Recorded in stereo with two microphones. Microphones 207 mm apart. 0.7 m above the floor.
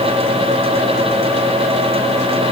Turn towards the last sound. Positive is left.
No sound to turn to.